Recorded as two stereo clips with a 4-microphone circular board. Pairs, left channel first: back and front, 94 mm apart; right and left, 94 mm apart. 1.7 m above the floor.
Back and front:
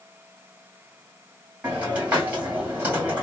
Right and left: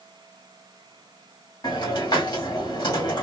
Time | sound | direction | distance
1.6 | a hiss | 75° right | 2 m